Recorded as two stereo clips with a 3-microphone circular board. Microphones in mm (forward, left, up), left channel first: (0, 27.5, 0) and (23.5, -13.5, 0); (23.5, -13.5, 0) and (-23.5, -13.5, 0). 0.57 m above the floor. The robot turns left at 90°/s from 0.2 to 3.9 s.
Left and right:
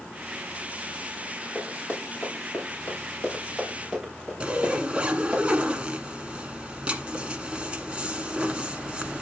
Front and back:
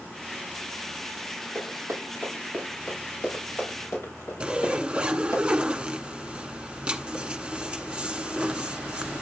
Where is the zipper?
115° right, 1.3 m.